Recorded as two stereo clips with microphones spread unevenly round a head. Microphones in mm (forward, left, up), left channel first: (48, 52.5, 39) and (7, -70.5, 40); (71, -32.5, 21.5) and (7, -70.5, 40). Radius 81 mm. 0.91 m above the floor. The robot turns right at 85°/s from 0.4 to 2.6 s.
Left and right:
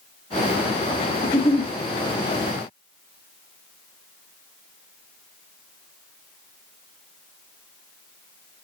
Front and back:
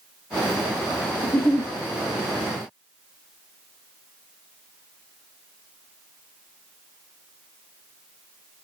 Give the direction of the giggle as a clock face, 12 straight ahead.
8 o'clock.